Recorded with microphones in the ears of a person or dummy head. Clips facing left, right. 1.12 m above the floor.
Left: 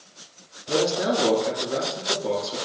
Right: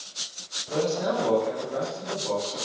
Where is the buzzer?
I don't hear a buzzer.